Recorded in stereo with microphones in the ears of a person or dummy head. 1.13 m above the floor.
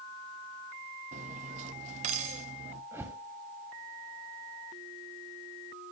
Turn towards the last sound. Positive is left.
turn(degrees=-10)  # may be behind; listen again after turning